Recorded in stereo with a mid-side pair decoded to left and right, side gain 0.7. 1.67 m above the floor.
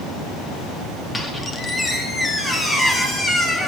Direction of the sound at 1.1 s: 10° left.